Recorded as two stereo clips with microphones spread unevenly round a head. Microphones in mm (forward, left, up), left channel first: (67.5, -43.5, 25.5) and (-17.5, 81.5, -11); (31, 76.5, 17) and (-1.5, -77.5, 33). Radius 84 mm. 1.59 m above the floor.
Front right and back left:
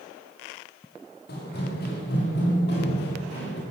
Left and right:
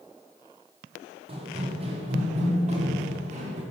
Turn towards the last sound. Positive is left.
turn(degrees=-60)